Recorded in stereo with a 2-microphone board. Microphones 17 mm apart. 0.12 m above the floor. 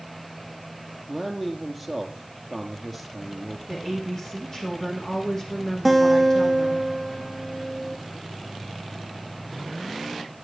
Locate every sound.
1.1 s a man speaking: 15° left (ahead or behind), 2.5 m
3.7 s a woman speaking: 40° left (ahead or behind), 4.5 m
5.8 s a guitar: centre (ahead or behind), 3 m